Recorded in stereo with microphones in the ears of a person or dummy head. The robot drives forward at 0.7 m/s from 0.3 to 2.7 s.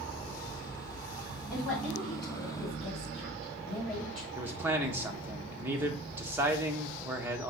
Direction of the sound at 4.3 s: 10° right (ahead or behind).